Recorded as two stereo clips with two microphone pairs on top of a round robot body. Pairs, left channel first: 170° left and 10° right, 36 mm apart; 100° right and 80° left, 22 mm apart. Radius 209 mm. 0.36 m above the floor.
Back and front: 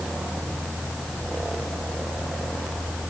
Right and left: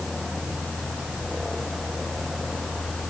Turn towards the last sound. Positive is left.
No sound to turn to.